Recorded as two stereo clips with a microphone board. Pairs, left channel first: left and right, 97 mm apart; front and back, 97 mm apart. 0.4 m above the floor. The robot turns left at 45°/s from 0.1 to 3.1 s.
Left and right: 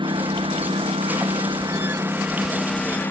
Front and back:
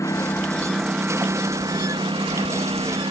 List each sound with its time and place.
0.0 s a lawn mower: 55° right; by 3.1 s 160° left